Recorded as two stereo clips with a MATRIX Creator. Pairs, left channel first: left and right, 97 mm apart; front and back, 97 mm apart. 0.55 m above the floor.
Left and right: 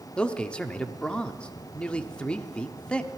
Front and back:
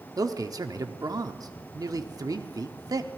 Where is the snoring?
I don't hear snoring.